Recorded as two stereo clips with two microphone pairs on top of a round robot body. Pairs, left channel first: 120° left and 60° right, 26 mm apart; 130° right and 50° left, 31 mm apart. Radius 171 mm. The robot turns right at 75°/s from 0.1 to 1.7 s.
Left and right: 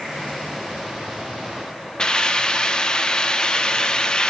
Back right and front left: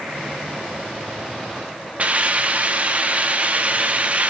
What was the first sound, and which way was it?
A hiss, 70° left.